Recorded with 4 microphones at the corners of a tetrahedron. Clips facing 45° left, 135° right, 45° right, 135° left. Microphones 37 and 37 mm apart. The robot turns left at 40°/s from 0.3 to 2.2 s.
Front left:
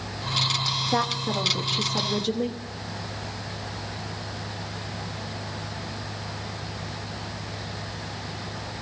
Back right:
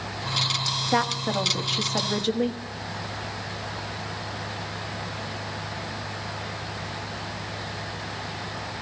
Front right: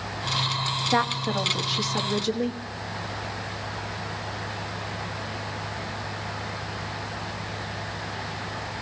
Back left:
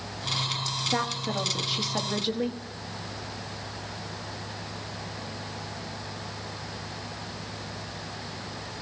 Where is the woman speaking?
105° right, 1.6 m; by 2.6 s 155° right, 1.6 m.